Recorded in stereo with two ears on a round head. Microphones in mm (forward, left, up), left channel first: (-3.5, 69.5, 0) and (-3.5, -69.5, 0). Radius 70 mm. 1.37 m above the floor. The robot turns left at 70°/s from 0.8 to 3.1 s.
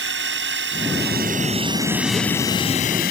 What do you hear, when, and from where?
0.0 s a drone: 85° right; by 3.1 s 65° left (ahead or behind)